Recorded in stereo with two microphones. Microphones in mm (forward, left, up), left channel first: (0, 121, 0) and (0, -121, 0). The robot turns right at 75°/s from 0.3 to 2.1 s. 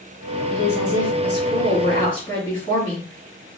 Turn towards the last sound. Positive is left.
turn(degrees=160)